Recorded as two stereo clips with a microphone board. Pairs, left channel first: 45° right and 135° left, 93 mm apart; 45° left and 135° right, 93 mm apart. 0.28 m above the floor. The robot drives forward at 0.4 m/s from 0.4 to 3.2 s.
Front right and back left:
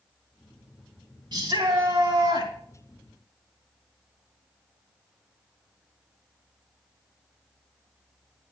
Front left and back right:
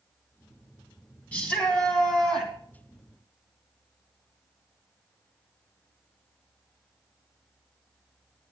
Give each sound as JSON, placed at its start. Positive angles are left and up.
{"t": 1.3, "sound": "a shout", "azimuth_deg": 115, "distance_m": 2.5}